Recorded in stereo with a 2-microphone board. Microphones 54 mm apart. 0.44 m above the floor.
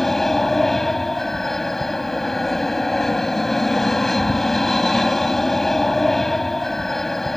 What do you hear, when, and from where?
0.0 s an aircraft: 5° left (ahead or behind)